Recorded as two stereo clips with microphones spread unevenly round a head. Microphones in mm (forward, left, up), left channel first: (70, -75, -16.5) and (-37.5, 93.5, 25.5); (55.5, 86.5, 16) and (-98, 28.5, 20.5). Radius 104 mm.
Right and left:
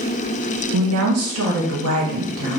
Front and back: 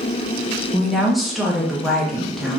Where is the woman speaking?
110° left, 0.7 m.